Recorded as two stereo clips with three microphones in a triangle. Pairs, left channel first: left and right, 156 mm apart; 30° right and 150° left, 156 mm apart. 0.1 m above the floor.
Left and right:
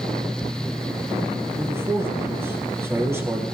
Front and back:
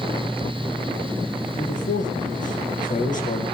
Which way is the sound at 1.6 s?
20° right.